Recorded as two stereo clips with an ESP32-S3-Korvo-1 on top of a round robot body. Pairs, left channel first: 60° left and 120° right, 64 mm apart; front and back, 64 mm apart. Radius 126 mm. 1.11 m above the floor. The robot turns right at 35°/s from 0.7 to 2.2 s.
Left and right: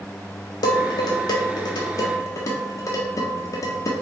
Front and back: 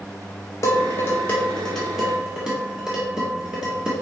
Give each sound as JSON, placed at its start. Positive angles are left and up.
{"t": 0.6, "sound": "dishes clattering", "azimuth_deg": 45, "distance_m": 0.7}